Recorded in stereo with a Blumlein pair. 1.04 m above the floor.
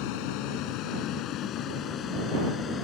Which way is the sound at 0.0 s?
45° left.